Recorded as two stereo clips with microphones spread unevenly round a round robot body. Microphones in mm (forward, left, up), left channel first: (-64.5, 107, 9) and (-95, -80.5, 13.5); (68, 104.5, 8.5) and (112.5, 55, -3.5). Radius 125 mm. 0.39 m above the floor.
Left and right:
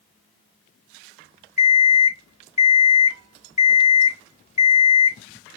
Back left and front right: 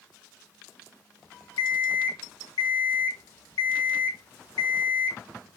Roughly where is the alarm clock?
Behind left.